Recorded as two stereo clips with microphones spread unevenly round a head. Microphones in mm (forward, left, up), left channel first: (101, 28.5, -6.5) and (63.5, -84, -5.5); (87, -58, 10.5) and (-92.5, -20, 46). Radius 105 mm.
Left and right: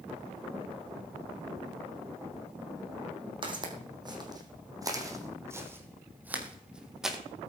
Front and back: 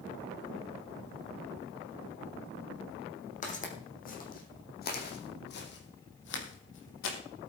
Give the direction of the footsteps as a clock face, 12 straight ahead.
2 o'clock.